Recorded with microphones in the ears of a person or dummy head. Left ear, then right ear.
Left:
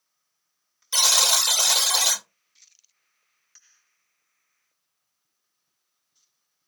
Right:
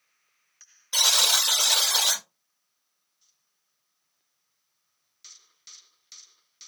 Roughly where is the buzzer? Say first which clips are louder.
Left 1 dB; left.